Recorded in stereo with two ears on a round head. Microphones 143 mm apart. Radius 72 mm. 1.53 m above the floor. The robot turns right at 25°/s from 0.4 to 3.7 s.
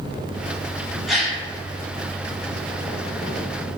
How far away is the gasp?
About 0.9 m.